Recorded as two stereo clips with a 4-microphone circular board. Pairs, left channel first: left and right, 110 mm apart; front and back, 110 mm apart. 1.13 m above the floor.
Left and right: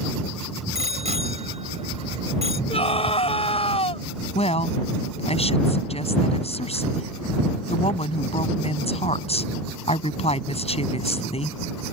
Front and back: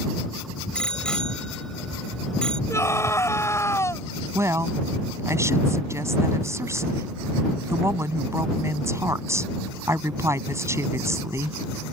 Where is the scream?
65° left.